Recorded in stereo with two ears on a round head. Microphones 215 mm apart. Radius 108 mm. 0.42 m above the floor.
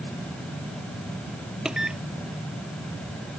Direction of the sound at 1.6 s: 5° right (ahead or behind).